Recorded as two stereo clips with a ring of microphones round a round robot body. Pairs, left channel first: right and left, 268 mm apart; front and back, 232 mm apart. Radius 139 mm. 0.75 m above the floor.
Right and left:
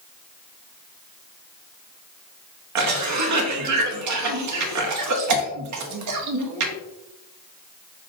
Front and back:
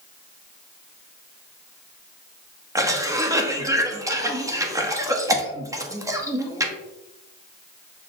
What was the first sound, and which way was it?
A cough, 105° left.